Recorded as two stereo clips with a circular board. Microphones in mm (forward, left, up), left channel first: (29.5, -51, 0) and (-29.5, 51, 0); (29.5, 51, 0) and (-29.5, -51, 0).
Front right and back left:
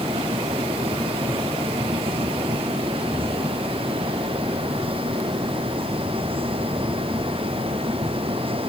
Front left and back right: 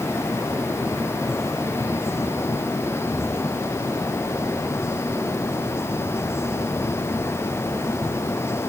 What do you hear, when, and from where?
Only background noise.